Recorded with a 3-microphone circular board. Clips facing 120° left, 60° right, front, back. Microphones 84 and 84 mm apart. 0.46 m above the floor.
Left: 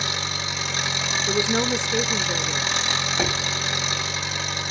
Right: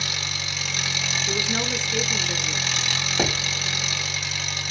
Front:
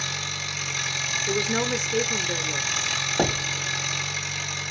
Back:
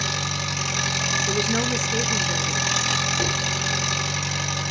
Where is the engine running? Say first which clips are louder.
Left 4 dB, back 5 dB; straight behind, 3.5 m.